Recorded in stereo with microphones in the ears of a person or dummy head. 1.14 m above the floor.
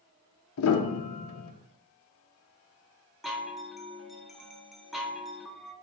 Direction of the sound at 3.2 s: Centre (ahead or behind).